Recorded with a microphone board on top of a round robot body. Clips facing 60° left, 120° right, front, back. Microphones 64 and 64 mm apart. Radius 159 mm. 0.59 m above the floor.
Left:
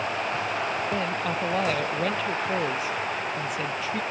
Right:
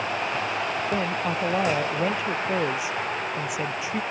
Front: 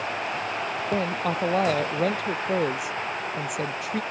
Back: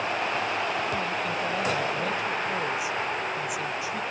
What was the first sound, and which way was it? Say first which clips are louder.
A woman speaking: right 1 dB, front 3 dB; 40° right.